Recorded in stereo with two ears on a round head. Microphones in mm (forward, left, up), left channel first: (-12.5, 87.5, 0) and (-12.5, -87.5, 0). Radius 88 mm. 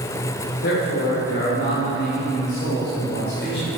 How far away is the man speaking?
About 4 m.